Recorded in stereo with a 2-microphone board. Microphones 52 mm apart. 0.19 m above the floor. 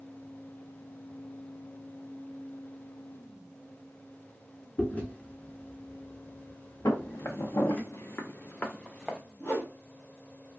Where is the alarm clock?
I don't hear an alarm clock.